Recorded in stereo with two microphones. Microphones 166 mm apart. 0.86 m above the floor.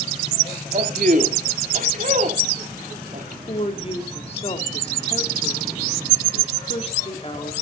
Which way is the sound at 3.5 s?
35° left (ahead or behind).